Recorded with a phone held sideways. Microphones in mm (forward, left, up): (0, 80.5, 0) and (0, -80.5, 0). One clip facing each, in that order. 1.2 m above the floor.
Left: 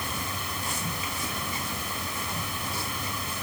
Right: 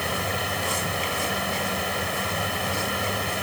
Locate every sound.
0.0 s a fan: 80° right